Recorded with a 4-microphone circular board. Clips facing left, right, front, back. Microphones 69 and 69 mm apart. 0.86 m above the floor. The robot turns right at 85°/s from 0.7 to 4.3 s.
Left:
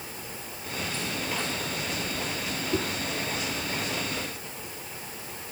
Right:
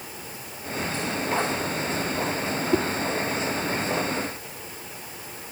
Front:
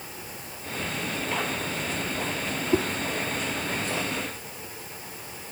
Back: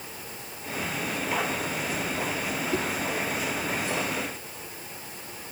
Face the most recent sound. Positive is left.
turn(degrees=90)